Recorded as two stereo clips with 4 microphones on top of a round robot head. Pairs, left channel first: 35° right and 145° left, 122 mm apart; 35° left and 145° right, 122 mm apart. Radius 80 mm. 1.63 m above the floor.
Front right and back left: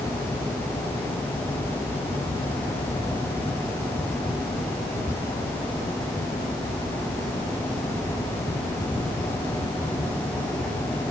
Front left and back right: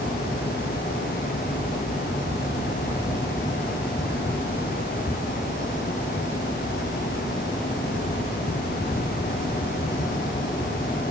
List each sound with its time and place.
Only background noise.